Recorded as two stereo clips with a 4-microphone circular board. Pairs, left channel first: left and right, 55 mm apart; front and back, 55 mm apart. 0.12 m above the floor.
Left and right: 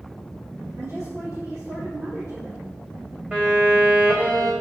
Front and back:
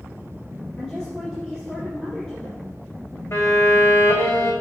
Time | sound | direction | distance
0.8 | a woman speaking | 80° right | 3.5 m
3.3 | a violin | 25° right | 3 m